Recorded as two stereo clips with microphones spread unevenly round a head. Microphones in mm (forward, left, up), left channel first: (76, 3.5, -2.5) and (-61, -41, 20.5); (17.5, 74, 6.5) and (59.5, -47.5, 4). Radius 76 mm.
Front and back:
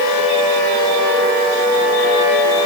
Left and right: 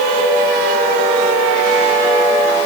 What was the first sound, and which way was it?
Only background noise.